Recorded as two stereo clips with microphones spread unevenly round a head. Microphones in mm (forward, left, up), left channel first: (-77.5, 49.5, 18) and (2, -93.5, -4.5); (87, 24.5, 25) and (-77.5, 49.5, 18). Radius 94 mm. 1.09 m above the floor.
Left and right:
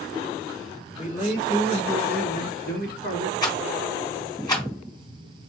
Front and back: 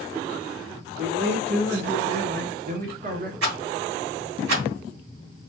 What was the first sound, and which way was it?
A man speaking, 170° left.